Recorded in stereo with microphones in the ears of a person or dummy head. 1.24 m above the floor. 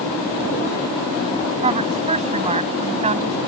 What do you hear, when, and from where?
1.6 s a woman speaking: 20° right (ahead or behind); by 3.4 s 25° right (ahead or behind)